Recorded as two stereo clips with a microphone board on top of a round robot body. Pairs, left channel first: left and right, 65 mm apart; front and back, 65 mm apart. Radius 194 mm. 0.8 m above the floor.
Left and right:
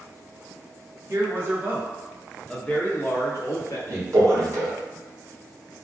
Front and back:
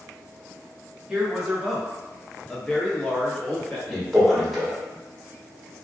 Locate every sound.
1.1 s a man speaking: 100° right, 1.0 m; by 3.8 s 70° left, 1.2 m
3.9 s a man speaking: 95° right, 1.5 m